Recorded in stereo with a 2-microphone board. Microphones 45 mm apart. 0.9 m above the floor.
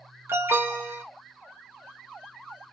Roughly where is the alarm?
Right.